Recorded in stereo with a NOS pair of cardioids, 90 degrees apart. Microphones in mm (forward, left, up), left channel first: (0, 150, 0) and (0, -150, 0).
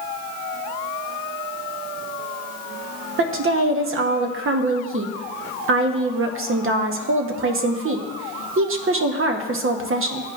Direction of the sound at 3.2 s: 45° right.